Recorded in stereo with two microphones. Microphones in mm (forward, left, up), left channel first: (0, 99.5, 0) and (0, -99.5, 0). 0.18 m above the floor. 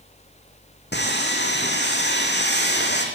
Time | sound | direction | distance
0.9 | sawing | 60° left (ahead or behind) | 3 m